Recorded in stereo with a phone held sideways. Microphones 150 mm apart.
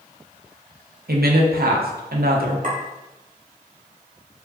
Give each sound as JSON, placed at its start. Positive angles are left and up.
{"t": 1.1, "sound": "a woman speaking", "side_deg": -80, "distance_m": 0.7}
{"t": 2.6, "sound": "a clink", "side_deg": -65, "distance_m": 1.2}